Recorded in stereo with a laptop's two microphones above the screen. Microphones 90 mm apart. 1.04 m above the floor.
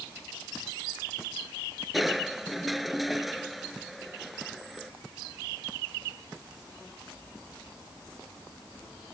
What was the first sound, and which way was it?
Crushing, centre (ahead or behind).